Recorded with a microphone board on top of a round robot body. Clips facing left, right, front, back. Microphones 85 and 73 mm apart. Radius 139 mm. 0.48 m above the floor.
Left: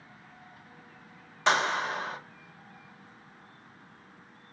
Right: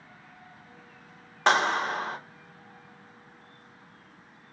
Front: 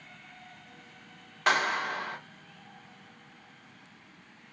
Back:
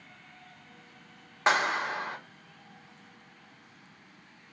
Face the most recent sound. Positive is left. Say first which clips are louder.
# right 3 dB, back 1 dB
turn(degrees=-115)